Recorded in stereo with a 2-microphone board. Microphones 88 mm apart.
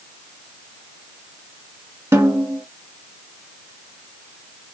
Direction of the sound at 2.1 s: 30° right (ahead or behind).